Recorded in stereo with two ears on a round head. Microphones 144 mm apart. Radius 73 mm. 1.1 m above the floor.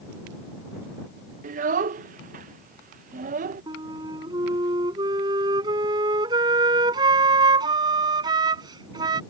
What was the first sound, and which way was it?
A child speaking, 50° right (ahead or behind).